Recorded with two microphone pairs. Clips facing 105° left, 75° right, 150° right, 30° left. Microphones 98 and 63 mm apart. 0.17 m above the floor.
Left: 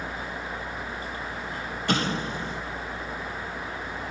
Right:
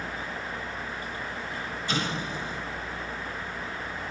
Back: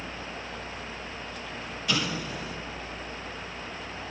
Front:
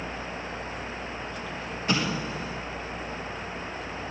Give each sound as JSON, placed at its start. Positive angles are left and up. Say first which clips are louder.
{"t": 1.9, "sound": "an explosion", "louder": "left 5 dB, front 2 dB", "azimuth_deg": 85, "distance_m": 4.0}